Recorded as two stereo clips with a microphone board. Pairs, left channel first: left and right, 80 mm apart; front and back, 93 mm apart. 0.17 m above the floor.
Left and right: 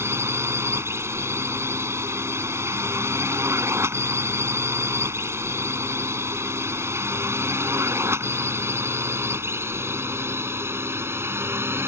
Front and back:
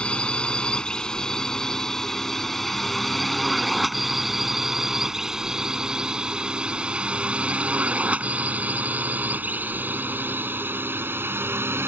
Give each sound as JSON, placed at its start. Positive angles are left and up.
{"t": 0.0, "sound": "a drone", "azimuth_deg": -70}